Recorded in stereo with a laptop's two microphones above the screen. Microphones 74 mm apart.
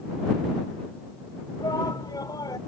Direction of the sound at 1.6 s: 65° left (ahead or behind).